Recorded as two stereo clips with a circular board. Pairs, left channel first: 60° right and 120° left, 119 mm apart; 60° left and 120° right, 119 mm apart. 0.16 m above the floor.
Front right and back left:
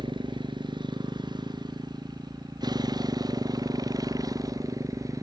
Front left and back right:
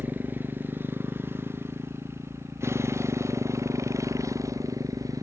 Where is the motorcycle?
165° left; by 5.2 s straight behind.